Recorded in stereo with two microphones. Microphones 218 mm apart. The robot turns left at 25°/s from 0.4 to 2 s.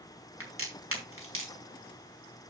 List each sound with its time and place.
0.4 s a crack: 80° right, 4 m; by 1.5 s 65° right (ahead or behind), 4 m